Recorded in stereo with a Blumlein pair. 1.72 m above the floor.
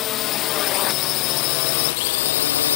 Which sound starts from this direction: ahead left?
A drone, at 0.0 s.